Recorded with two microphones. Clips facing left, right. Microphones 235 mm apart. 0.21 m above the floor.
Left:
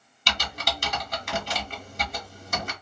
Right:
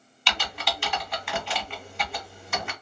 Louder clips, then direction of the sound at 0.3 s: Even; 45° left (ahead or behind).